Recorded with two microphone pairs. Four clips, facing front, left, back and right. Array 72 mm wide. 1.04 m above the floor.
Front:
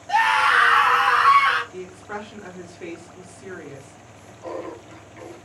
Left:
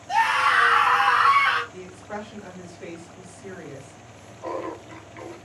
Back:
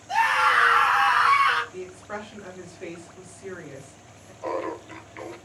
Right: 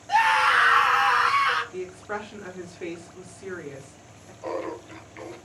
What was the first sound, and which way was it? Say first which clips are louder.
A scream: even, front 3 dB; 30° right.